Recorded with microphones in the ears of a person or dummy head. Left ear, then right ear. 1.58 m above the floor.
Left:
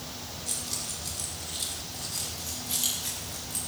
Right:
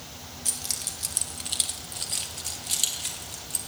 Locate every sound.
0.5 s keys jangling: 65° right (ahead or behind), 1.9 m; by 3.6 s 20° right (ahead or behind), 3 m